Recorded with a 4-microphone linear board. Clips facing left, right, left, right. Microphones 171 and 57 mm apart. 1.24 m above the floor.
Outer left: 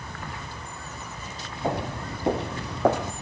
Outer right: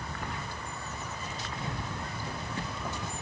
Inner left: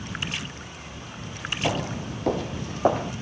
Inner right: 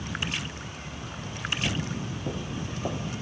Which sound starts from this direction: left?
Footsteps, at 1.6 s.